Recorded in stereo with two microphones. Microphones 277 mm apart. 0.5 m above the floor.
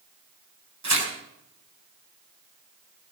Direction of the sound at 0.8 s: 75° right (ahead or behind).